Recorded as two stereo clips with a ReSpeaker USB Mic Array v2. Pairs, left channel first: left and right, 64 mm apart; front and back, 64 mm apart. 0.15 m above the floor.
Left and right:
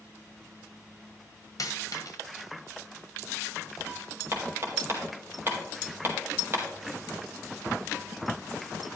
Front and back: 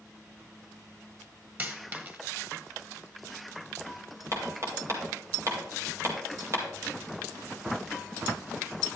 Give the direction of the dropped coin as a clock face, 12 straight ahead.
8 o'clock.